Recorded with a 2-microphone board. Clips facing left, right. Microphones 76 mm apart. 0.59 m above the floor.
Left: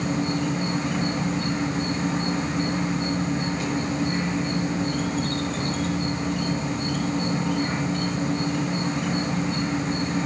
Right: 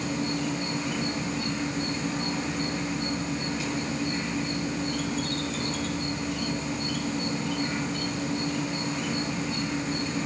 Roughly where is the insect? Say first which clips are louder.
Left 4 dB; left.